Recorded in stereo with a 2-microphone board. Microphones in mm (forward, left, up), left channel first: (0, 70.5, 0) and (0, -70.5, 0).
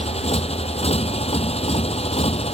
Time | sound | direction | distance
0.0 | a motorcycle | 45° left (ahead or behind) | ?